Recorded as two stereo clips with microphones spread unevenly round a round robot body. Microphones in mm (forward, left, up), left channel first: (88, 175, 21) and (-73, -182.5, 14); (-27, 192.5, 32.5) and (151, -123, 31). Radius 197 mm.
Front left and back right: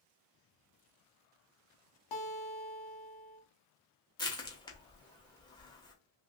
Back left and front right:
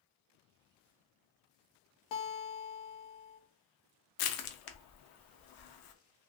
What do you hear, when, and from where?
2.1 s a guitar: 105° left, 0.8 m
4.2 s crushing: 145° left, 0.6 m